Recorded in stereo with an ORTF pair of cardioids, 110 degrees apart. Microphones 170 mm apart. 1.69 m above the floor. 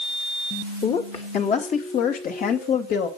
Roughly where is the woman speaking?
Ahead left.